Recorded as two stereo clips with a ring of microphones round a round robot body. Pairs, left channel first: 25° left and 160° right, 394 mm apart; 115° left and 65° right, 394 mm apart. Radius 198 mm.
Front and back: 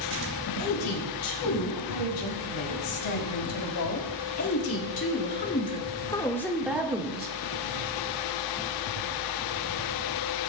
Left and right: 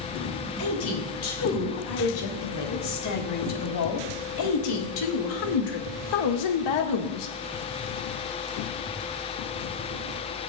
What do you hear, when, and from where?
0.6 s a woman speaking: 55° left, 6.5 m; by 7.4 s 130° left, 2.5 m